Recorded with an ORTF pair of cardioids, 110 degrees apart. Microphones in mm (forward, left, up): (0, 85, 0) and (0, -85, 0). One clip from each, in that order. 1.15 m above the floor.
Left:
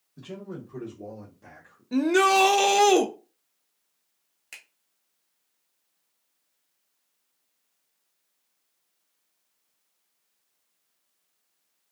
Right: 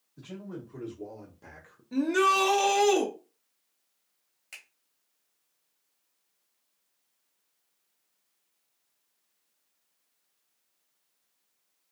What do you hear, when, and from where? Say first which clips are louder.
0.2 s a man speaking: left 3 dB; 30° left, 1.2 m; by 1.8 s 40° right, 0.6 m
1.9 s a shout: left 4 dB; 30° left, 0.5 m
4.5 s a finger snap: left 2 dB; 20° left, 1.1 m